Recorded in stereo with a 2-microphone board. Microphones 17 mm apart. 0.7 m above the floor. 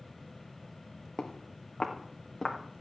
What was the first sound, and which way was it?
Footsteps, 25° left (ahead or behind).